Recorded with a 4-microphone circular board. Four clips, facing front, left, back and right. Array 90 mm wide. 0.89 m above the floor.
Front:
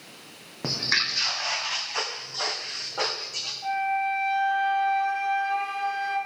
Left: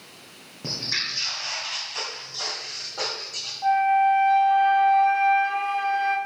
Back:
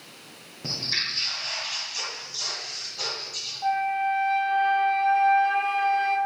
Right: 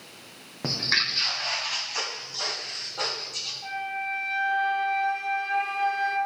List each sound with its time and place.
0.6 s footsteps: 40° right, 1.9 m; by 3.5 s 20° left, 2.5 m
3.6 s a flute: 125° left, 1.5 m